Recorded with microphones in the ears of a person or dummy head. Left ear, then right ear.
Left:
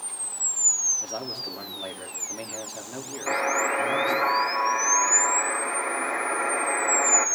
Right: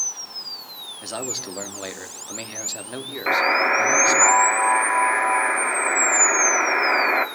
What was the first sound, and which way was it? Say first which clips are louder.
A man speaking: right 2 dB; 40° right (ahead or behind).